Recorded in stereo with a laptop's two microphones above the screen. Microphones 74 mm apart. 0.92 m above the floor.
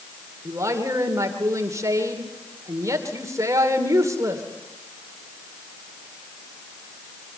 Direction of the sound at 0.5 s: 45° right (ahead or behind).